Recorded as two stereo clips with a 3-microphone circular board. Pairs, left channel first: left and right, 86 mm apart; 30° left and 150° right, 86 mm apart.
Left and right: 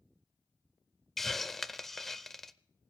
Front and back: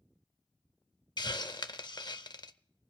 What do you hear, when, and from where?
1.2 s a hiss: 5° left, 0.6 m